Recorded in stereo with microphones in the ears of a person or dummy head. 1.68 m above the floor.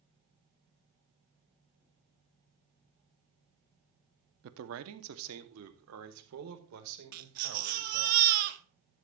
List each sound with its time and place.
4.4 s a man speaking: 60° right (ahead or behind), 0.8 m; by 8.1 s 80° right, 2.5 m
7.1 s a baby crying: 45° right (ahead or behind), 1.0 m